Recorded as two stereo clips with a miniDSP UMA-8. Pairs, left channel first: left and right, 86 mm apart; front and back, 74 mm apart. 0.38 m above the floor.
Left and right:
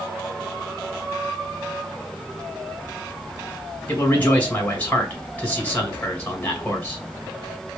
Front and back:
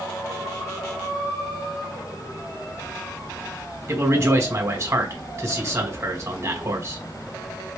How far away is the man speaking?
About 1.9 m.